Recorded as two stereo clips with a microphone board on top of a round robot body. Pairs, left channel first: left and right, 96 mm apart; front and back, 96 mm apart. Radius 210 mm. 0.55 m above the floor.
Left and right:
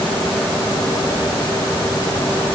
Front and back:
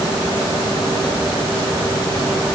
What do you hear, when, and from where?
Only background noise.